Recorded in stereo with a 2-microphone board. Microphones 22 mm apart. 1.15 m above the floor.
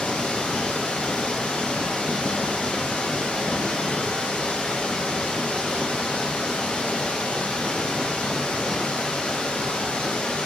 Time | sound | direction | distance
0.0 | running water | 60° left (ahead or behind) | 1.4 m